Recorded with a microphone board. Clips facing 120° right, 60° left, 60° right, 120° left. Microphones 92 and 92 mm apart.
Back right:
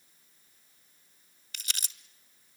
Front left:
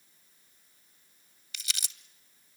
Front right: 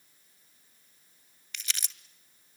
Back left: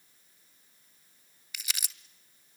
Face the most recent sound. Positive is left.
turn(degrees=-160)